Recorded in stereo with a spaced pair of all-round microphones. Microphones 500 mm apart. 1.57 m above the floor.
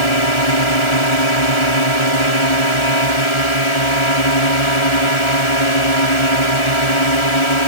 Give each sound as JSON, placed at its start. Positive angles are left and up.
{"t": 0.0, "sound": "a drone", "side_deg": 65}